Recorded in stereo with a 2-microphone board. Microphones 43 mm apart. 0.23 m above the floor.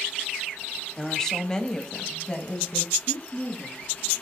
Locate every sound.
1.0 s a woman speaking: 10° left (ahead or behind), 1.4 m